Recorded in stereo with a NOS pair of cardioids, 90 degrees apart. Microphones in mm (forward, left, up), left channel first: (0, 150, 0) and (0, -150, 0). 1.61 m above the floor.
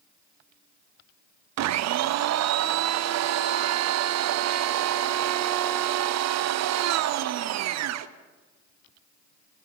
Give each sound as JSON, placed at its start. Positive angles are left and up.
{"t": 1.6, "sound": "a blender", "azimuth_deg": -60, "distance_m": 0.5}